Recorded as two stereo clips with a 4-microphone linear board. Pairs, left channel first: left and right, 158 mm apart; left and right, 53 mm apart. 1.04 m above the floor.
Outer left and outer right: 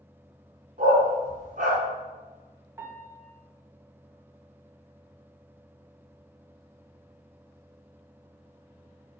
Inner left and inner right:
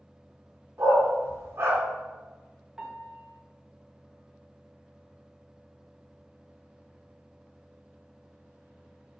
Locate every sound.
0.8 s a dog barking: 55° right (ahead or behind), 2.5 m
2.8 s a piano: 15° right (ahead or behind), 1.0 m